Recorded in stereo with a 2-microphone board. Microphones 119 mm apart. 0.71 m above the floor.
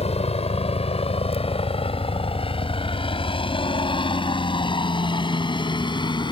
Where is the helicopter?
60° left (ahead or behind); by 6.3 s 40° left (ahead or behind).